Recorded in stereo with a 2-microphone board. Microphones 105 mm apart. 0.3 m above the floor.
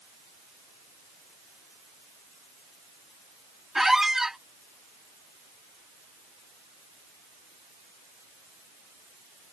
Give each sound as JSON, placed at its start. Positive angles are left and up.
{"t": 3.8, "sound": "a squeak", "side_deg": -5}